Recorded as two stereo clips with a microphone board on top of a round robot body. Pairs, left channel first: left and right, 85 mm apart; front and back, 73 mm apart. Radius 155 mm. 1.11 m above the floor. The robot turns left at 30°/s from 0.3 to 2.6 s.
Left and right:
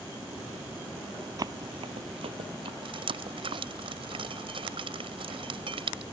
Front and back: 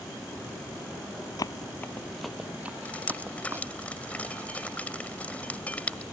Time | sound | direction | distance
1.4 | running footsteps | 40° right | ?
2.9 | dripping | 70° right | ?